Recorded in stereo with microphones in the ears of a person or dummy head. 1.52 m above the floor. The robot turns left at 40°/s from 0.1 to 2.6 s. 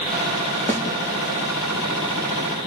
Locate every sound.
0.7 s a snare drum: 10° left (ahead or behind), 2.5 m; by 0.8 s 20° left (ahead or behind), 2.5 m